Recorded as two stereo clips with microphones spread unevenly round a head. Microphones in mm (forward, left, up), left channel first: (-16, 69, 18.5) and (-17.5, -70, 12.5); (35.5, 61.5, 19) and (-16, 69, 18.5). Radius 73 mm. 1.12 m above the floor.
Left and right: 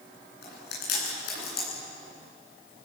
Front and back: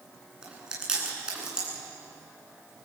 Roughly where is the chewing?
Left.